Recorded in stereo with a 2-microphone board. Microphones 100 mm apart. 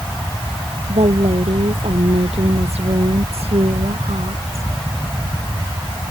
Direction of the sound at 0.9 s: 80° right.